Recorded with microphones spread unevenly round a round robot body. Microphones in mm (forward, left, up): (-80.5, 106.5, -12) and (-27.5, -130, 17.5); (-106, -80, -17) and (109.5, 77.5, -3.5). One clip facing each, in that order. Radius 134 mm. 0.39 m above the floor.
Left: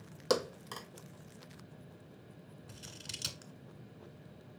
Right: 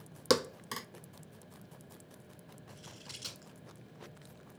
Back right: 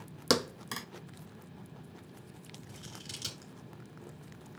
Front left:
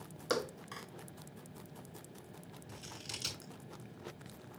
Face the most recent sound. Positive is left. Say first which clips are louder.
# even, back right 1 dB
turn(degrees=130)